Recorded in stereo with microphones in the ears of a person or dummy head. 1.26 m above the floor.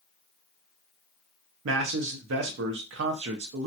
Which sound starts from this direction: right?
A man speaking, at 1.6 s.